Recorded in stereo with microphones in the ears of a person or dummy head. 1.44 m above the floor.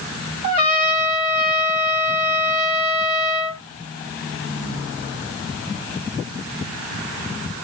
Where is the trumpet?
45° right (ahead or behind), 3 m.